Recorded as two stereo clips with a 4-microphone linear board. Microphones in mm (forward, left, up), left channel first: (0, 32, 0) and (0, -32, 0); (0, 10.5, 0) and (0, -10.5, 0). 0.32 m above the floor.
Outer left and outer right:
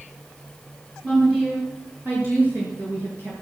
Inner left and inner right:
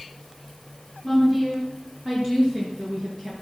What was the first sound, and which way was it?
A woman speaking, 20° right (ahead or behind).